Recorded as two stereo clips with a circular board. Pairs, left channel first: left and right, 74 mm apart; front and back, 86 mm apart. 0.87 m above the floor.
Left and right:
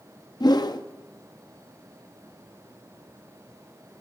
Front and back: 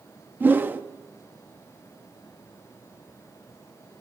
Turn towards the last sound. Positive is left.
turn(degrees=115)